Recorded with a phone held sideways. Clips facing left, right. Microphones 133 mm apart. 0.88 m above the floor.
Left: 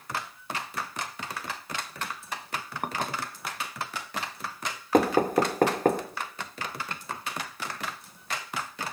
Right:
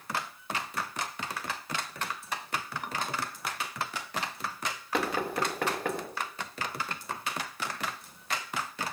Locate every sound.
2.8 s dishes clattering: 50° left (ahead or behind), 0.9 m
4.9 s knocking: 45° left (ahead or behind), 0.9 m